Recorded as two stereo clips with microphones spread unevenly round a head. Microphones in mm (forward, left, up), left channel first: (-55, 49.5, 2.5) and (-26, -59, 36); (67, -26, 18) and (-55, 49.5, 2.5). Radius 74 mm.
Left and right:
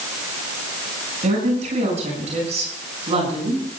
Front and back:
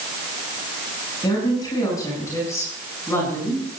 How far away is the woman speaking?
About 9 m.